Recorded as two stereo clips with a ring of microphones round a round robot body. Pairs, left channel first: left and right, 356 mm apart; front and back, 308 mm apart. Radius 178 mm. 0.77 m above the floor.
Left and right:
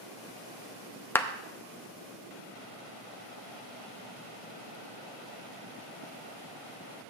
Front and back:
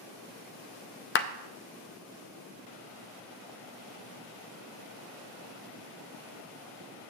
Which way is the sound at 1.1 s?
10° left.